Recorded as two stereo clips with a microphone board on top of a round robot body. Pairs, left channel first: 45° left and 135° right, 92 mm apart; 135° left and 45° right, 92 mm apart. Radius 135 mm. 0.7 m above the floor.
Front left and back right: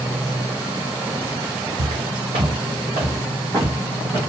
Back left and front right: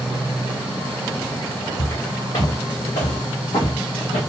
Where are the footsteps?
170° right, 2 m; by 4.2 s 155° left, 1.2 m.